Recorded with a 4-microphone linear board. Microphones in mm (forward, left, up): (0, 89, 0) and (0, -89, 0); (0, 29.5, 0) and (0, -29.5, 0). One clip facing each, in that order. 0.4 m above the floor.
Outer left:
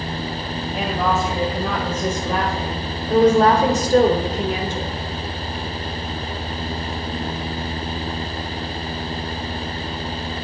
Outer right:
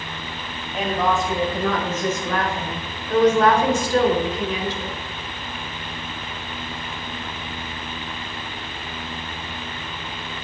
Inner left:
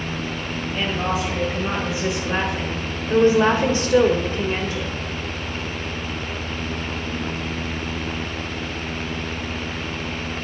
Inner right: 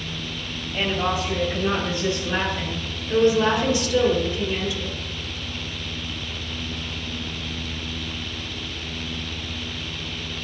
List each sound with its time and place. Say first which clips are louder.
0.7 s a woman speaking: even, inner right 1 dB; centre (ahead or behind), 2 m; by 4.9 s 50° left (ahead or behind), 1.5 m